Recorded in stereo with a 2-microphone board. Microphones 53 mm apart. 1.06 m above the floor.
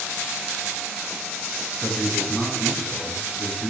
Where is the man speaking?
5° left (ahead or behind), 7.5 m.